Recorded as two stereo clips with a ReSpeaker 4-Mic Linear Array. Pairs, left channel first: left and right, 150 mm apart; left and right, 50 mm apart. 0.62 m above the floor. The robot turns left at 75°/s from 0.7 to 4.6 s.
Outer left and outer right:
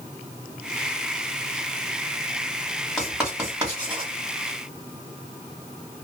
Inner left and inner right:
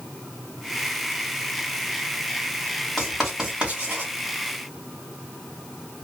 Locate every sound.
3.0 s writing: 5° left (ahead or behind), 1.4 m; by 4.1 s 40° right (ahead or behind), 1.4 m